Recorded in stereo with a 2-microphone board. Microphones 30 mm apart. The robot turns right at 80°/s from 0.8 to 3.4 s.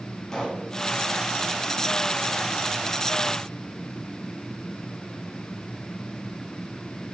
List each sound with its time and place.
0.3 s a pop: 15° left (ahead or behind), 2.5 m